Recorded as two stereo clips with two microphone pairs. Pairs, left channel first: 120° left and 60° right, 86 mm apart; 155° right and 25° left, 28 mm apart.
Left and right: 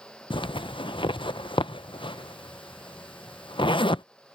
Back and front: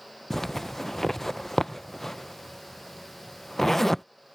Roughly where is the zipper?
Behind left.